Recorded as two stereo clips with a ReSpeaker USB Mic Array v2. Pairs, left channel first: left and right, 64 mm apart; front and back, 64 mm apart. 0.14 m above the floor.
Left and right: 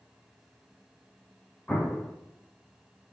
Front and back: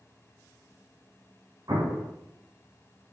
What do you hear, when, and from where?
1.7 s an explosion: 155° left, 2.5 m